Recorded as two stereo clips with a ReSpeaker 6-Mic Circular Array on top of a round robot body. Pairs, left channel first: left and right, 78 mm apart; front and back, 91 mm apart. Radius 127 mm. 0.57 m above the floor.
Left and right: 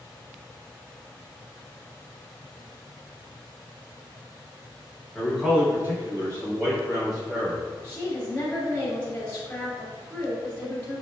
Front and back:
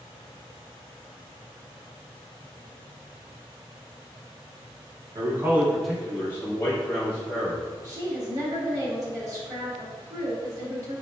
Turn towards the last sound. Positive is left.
turn(degrees=155)